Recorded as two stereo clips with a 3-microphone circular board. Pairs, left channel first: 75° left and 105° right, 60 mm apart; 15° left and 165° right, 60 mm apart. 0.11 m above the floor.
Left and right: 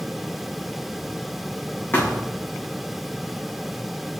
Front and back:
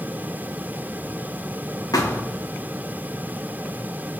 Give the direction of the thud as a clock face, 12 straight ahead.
11 o'clock.